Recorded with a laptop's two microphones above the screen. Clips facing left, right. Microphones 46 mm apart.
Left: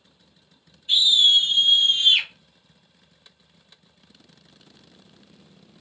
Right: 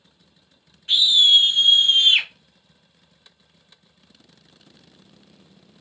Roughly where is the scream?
Right.